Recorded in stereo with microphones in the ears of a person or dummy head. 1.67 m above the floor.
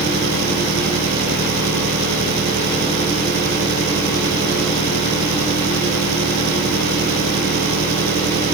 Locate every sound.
0.0 s an engine running: 60° right (ahead or behind)